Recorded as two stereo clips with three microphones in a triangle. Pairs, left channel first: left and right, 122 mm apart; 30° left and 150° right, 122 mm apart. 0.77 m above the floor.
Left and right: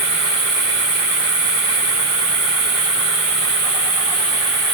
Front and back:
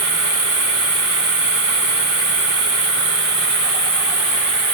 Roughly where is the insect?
Right.